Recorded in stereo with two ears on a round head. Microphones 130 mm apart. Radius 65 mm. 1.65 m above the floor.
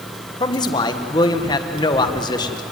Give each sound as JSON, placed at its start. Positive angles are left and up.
{"t": 0.4, "sound": "a man speaking", "side_deg": 30, "distance_m": 1.6}